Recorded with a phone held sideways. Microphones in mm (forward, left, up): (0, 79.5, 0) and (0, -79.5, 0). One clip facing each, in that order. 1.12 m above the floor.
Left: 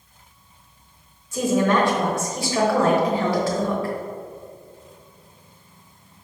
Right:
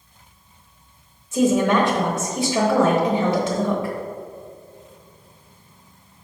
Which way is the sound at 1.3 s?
15° right (ahead or behind).